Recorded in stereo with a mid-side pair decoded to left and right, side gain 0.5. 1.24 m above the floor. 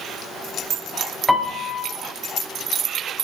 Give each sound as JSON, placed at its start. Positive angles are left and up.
{"t": 1.3, "sound": "a piano", "azimuth_deg": 5, "distance_m": 1.9}